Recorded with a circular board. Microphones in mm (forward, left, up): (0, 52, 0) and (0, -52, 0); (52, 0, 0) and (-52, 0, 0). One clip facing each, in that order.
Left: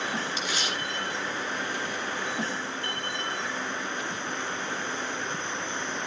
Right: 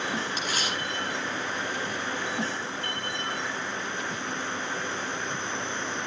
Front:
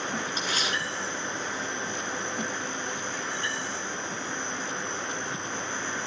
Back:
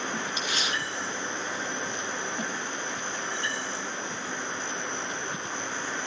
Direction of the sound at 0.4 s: 50° right.